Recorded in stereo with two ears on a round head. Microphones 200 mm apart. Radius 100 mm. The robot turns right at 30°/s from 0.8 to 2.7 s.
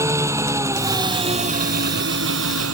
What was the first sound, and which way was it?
An engine running, 165° right.